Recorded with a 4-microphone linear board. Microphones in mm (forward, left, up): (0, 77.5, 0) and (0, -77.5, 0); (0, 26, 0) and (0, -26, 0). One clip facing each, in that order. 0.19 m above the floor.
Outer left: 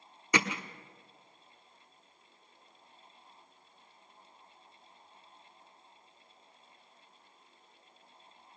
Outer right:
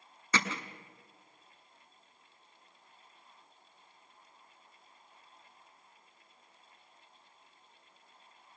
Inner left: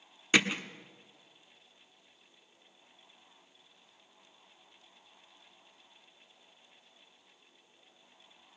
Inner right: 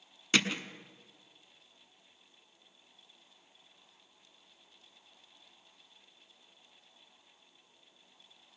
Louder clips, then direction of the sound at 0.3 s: Outer left 3 dB, inner left 3 dB; 15° left (ahead or behind).